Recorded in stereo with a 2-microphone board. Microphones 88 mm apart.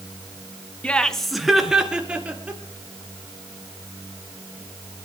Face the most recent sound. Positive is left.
turn(degrees=-15)  # may be behind; listen again after turning